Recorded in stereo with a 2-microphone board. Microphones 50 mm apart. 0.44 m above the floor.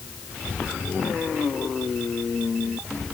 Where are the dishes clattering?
I don't hear dishes clattering.